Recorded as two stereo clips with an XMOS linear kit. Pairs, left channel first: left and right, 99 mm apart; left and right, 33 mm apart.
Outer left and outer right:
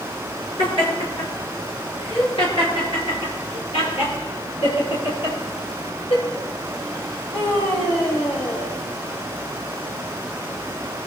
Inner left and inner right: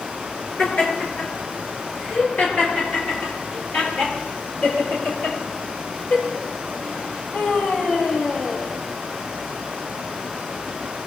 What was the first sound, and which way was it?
Laughter, 60° left (ahead or behind).